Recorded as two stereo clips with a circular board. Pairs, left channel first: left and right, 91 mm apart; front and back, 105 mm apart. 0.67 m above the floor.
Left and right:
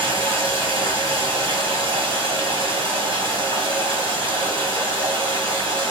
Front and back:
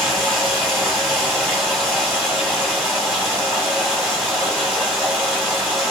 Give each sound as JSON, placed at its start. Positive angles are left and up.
{"t": 0.0, "sound": "running water", "azimuth_deg": -85, "distance_m": 1.5}